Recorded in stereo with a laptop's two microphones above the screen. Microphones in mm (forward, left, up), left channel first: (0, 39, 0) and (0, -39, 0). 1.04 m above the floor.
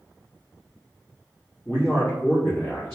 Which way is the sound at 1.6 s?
35° left (ahead or behind).